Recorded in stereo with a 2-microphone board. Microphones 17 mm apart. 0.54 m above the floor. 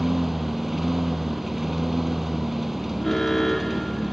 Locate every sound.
0.0 s a lawn mower: 10° right (ahead or behind)
3.0 s an alarm: 20° left (ahead or behind)